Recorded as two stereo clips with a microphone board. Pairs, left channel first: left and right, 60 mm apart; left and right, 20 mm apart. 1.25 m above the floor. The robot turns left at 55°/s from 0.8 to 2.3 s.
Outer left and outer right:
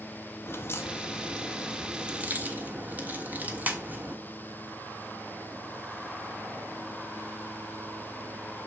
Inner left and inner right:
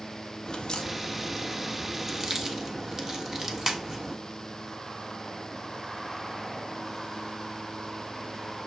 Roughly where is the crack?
Ahead left.